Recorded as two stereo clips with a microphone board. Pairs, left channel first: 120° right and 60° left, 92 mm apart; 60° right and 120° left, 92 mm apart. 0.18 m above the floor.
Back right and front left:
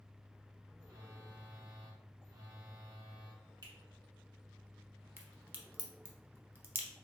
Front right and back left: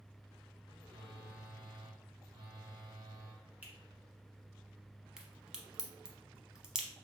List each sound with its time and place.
0.8 s a phone buzzing: 90° left, 1.1 m
3.6 s a finger snap: 50° left, 1.4 m
5.2 s a crack: 50° left, 0.6 m